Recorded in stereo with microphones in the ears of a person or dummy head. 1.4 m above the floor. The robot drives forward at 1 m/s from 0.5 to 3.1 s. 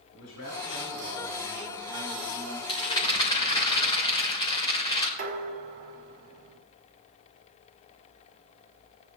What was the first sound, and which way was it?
A man speaking, 85° left.